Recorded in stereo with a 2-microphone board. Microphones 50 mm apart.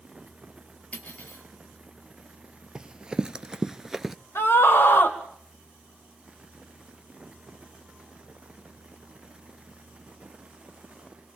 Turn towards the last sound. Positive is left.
turn(degrees=75)  # may be behind; listen again after turning